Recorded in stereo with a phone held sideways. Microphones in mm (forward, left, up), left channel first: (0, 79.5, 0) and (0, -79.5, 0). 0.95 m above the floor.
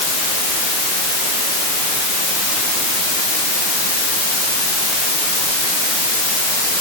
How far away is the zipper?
No zipper in this recording.